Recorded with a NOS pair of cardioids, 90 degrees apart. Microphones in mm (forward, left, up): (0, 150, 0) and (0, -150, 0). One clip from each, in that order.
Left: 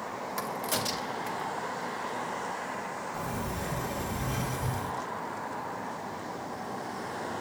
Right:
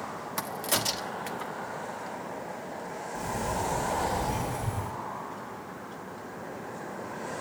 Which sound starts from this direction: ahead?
A crack, at 0.4 s.